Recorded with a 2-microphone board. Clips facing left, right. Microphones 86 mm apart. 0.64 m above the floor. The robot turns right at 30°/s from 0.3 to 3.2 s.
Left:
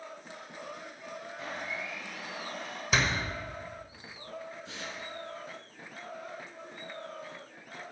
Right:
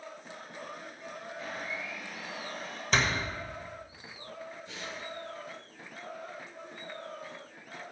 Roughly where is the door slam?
Centre.